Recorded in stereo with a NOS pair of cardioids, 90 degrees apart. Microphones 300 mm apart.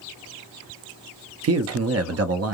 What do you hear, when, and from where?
1.4 s a man speaking: 55° right, 0.8 m